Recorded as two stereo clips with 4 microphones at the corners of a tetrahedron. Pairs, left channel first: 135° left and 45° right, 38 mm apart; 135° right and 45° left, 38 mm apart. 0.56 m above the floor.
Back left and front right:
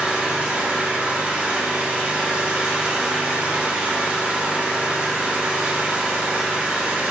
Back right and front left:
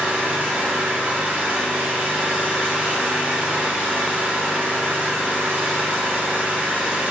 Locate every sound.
0.0 s an engine running: 10° left, 1.7 m